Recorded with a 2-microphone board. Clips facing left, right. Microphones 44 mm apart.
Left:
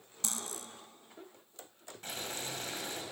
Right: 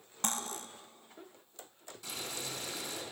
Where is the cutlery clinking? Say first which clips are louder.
Right 4 dB; 50° right (ahead or behind), 0.8 m.